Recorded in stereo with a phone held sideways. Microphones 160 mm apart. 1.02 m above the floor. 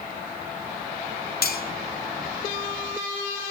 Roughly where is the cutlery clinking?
Left.